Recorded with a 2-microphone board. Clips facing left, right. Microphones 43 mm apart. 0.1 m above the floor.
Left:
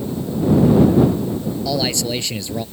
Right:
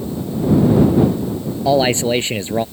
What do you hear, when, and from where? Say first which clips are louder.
1.6 s a man speaking: right 9 dB; 35° right (ahead or behind)